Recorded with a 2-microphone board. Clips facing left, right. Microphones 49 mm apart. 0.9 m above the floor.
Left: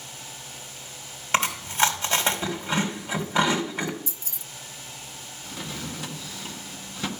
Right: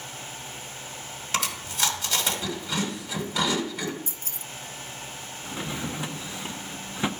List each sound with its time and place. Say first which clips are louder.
1.3 s chewing: left 6 dB; 35° left (ahead or behind), 2.5 m
4.1 s keys jangling: right 2 dB; 45° right (ahead or behind), 0.5 m
5.4 s a drawer: right 3 dB; 20° right (ahead or behind), 0.7 m